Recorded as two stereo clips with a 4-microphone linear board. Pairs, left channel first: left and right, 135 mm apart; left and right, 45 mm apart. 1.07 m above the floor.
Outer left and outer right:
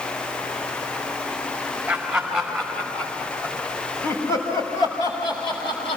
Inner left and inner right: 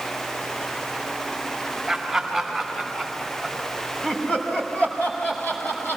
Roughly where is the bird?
No bird in this recording.